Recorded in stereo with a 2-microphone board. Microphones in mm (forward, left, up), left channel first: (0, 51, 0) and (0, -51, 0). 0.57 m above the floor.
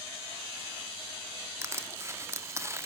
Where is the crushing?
25° right (ahead or behind), 0.8 m.